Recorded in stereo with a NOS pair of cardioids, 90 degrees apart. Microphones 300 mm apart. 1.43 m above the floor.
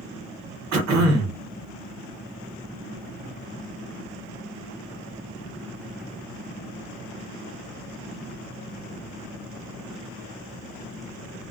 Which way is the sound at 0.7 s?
65° right.